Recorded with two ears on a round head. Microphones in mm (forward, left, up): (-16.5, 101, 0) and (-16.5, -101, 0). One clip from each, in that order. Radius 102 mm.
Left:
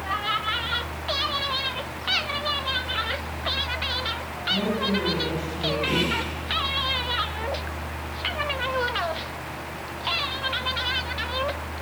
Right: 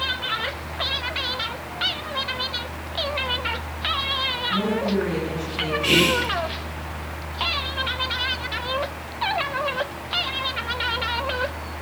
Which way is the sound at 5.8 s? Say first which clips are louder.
Right 9 dB; 85° right.